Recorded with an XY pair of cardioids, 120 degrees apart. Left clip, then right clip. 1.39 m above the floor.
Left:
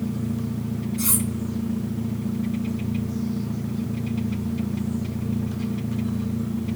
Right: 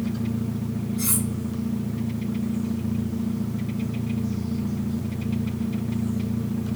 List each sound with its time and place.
1.0 s cutlery clinking: 35° left, 1.4 m